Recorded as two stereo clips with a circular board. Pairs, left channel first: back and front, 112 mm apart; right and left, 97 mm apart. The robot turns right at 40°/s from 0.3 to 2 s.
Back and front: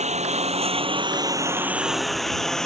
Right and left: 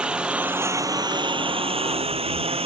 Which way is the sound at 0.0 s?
10° left.